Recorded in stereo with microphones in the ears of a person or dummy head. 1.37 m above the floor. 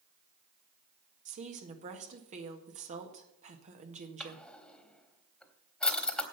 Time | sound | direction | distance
1.2 | a woman speaking | 40° right (ahead or behind) | 1.7 m
4.2 | a drawer | 5° left (ahead or behind) | 1.2 m